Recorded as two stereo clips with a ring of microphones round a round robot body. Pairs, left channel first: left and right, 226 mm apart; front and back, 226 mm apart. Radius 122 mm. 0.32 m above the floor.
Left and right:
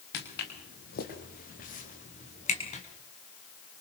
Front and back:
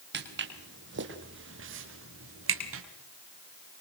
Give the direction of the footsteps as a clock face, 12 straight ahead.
7 o'clock.